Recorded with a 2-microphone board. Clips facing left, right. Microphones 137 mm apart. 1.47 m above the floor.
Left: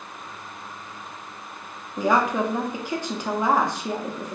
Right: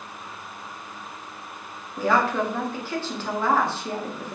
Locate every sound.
2.0 s a woman speaking: 15° left (ahead or behind), 0.5 m